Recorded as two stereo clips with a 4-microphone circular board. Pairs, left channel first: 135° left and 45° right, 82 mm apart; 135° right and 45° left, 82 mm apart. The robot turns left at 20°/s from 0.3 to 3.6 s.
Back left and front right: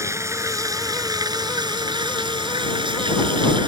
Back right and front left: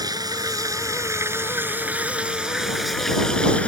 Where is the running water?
5° left; by 3.7 s 60° right.